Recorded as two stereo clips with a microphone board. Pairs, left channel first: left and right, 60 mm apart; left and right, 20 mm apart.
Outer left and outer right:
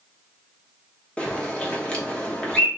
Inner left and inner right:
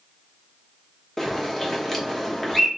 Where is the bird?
20° left (ahead or behind), 0.9 m.